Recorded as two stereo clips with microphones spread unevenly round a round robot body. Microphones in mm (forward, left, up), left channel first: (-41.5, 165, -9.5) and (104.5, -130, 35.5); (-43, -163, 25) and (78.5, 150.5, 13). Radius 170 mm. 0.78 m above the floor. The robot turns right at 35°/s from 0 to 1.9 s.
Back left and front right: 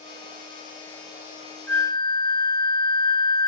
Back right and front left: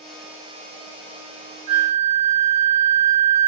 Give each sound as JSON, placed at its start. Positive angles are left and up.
{"t": 1.7, "sound": "a flute", "azimuth_deg": 35, "distance_m": 1.3}